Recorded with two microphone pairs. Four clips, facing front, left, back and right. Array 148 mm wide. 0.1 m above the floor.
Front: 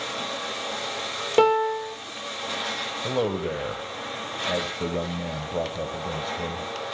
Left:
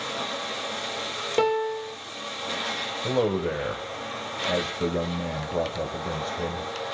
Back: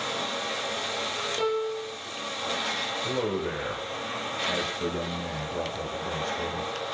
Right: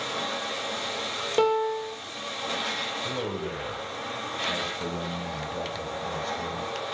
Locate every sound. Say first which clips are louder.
1.4 s a piano: even, front 9 dB; 5° left, 3 m
3.0 s a man speaking: left 10 dB, front 4 dB; 65° left, 3.5 m